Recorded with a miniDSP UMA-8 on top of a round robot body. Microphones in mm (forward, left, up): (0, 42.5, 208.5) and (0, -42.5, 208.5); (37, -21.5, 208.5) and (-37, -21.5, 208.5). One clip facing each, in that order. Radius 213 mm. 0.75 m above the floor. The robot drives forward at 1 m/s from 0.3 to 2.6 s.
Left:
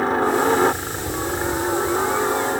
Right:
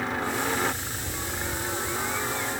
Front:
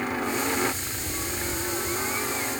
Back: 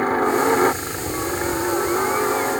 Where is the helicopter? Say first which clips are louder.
Left 10 dB, back 9 dB; 135° left.